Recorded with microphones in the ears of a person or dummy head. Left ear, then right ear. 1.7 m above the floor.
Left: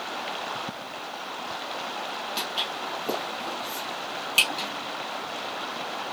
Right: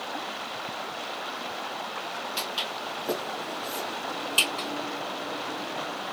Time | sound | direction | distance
2.4 | footsteps | centre (ahead or behind) | 2.5 m